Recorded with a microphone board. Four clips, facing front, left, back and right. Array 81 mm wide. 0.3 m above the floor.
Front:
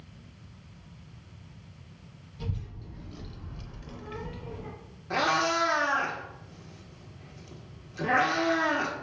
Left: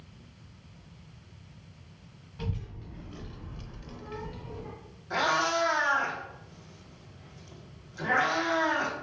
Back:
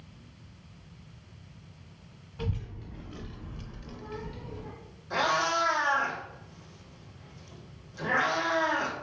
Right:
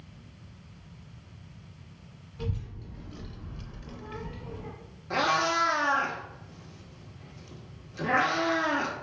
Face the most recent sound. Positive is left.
turn(degrees=-40)